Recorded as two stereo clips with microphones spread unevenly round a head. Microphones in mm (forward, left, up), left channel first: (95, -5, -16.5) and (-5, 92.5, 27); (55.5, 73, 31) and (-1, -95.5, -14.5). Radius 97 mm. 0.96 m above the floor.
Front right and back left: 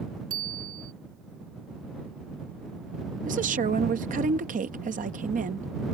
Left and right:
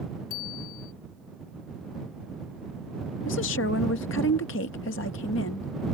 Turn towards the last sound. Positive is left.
turn(degrees=105)